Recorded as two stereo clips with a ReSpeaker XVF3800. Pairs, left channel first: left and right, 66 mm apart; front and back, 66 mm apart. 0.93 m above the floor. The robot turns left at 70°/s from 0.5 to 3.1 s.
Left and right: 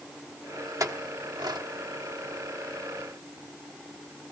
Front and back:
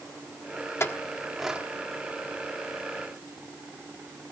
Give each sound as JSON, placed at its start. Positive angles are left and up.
{"t": 0.8, "sound": "a clink", "azimuth_deg": -50, "distance_m": 1.2}